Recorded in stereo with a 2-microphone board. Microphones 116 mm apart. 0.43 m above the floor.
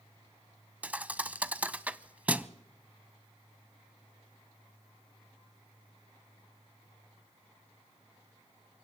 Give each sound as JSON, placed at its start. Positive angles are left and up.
{"t": 0.8, "sound": "a thud", "side_deg": -10, "distance_m": 0.5}